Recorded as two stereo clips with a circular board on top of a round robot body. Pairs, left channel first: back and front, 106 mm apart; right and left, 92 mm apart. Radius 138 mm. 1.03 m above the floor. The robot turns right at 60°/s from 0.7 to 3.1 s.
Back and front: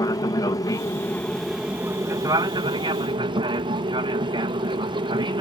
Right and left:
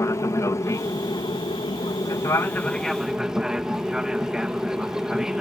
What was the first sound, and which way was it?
An aircraft, 135° right.